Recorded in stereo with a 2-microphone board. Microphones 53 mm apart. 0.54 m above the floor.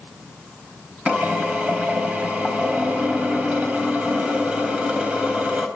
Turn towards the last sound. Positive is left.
turn(degrees=-25)  # may be behind; listen again after turning